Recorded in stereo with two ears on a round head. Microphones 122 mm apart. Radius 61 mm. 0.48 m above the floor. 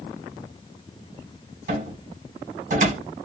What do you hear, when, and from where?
1.7 s a cupboard door: 65° right (ahead or behind), 3 m